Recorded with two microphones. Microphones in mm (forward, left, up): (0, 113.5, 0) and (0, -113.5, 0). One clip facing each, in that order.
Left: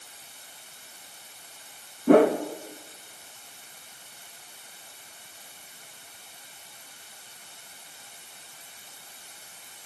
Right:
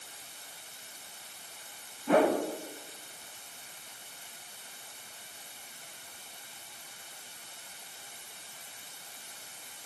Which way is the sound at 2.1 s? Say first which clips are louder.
Left 8 dB; 50° left (ahead or behind).